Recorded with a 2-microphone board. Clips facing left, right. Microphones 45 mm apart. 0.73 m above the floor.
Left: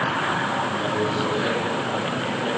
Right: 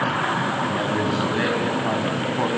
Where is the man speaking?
75° right (ahead or behind), 5.5 m.